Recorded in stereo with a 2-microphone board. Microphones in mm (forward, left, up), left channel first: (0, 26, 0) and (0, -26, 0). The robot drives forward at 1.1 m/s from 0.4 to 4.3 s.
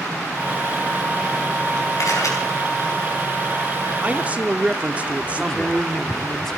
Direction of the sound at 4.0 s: 20° right (ahead or behind).